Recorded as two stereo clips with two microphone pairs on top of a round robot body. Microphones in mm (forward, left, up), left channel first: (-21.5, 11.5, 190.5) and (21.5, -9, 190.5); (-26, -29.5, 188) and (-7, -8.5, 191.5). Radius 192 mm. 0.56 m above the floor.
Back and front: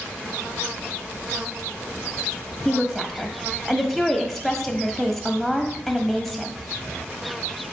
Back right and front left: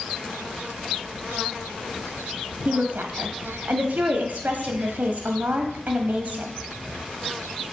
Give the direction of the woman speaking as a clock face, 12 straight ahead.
10 o'clock.